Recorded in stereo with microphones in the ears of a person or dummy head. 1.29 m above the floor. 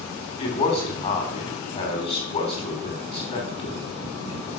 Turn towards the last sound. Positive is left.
turn(degrees=40)  # may be behind; listen again after turning